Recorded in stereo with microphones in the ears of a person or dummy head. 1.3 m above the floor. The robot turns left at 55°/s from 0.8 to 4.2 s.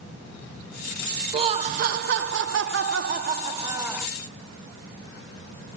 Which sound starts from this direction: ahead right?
Laughter, at 1.3 s.